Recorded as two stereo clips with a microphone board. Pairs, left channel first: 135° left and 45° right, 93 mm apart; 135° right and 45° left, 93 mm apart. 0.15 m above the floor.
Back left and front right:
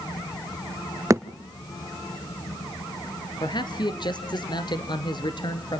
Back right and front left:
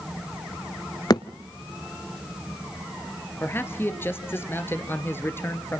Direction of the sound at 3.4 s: 160° left.